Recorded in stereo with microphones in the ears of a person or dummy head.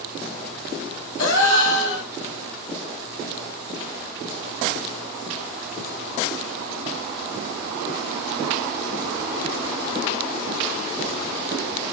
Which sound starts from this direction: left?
A gasp, at 1.2 s.